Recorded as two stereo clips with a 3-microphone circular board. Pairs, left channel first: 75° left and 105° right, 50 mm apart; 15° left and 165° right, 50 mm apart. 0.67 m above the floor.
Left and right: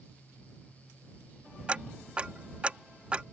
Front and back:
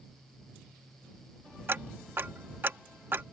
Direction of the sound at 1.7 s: 160° right.